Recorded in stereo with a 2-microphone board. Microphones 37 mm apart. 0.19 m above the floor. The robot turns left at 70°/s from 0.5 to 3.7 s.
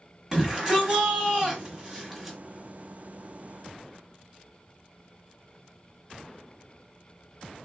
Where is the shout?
15° right (ahead or behind), 1.2 m; by 2.4 s centre (ahead or behind), 1.2 m.